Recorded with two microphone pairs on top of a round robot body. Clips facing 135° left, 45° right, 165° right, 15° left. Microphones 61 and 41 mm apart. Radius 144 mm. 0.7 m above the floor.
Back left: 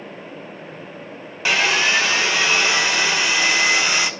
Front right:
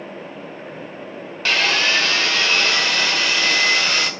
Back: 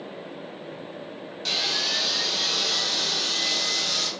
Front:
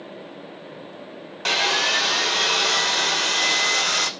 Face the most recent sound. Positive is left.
turn(degrees=55)